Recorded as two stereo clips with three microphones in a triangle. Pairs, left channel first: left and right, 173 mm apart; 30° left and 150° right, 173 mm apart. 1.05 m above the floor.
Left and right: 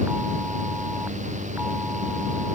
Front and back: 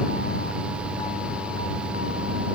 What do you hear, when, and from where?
Only background noise.